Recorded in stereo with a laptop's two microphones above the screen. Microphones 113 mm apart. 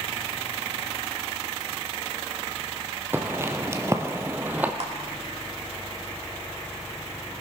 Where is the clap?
65° right (ahead or behind), 2 m.